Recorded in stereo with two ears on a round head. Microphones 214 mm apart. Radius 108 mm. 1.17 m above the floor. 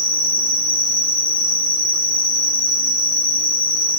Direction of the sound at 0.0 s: 85° left.